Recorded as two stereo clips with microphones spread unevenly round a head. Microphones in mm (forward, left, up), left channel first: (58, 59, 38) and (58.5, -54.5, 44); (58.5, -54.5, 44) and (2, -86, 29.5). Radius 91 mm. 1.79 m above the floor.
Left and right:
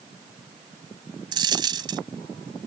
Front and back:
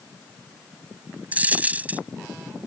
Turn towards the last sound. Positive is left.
turn(degrees=-80)